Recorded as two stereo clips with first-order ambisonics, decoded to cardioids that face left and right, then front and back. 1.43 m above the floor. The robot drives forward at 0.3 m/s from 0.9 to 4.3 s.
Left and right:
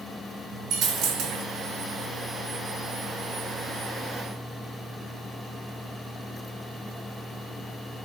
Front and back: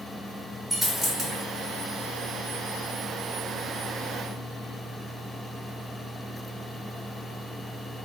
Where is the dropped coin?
100° right, 1.6 m; by 1.4 s 110° right, 1.7 m.